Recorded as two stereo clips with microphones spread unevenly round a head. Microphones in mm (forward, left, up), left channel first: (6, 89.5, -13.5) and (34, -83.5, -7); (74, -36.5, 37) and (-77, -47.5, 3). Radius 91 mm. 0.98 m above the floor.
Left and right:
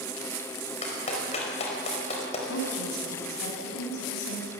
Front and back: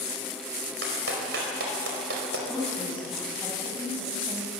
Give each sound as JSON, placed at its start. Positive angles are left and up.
{"t": 0.8, "sound": "a clap", "azimuth_deg": 155, "distance_m": 4.5}
{"t": 2.5, "sound": "a woman speaking", "azimuth_deg": 100, "distance_m": 6.0}